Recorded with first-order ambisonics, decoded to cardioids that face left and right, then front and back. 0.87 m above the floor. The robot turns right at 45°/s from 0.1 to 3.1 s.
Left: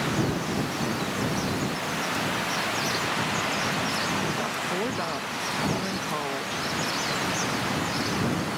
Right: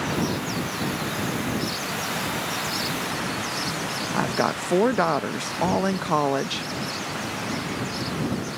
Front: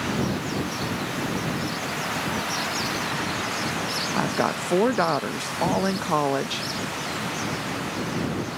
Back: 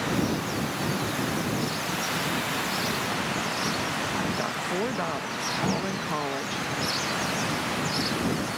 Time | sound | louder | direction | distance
4.1 | a woman speaking | right 4 dB, front 4 dB | 50° right | ?